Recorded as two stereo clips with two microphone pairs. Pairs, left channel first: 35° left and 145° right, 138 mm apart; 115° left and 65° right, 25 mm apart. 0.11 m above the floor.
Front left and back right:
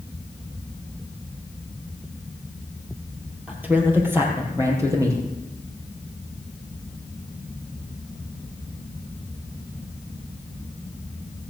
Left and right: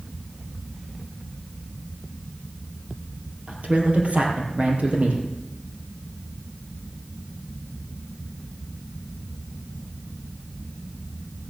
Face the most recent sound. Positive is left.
turn(degrees=-80)